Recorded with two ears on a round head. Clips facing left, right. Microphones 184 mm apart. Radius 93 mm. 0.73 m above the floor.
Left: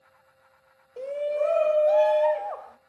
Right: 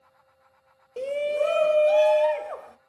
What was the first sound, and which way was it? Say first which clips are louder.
A shout: right 1 dB; 35° right (ahead or behind).